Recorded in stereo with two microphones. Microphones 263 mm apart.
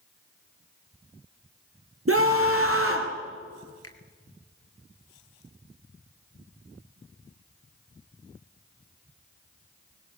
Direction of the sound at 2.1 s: 60° right (ahead or behind).